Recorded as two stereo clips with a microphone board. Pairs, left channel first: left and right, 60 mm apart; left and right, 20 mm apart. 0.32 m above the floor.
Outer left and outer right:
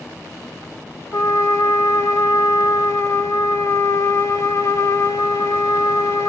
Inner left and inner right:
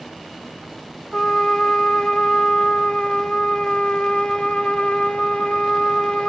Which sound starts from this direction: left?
A trumpet, at 1.1 s.